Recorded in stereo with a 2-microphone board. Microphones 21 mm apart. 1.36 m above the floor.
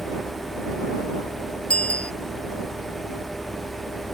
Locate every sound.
1.7 s a bicycle bell: 85° left